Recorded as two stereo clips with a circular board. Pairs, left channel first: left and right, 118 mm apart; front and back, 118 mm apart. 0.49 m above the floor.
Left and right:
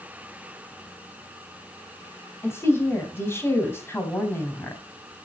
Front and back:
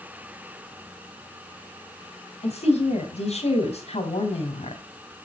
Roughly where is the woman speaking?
Ahead.